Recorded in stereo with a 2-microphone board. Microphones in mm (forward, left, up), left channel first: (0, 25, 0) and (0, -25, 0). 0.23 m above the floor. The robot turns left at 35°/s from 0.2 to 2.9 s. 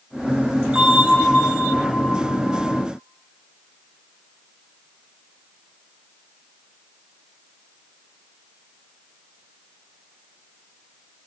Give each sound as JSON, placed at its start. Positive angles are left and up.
{"t": 0.8, "sound": "a bell", "azimuth_deg": -160, "distance_m": 4.5}